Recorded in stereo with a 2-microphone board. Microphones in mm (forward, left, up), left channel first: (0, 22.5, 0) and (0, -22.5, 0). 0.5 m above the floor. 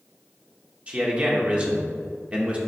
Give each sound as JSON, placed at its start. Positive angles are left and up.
{"t": 0.9, "sound": "a man speaking", "side_deg": -25, "distance_m": 1.2}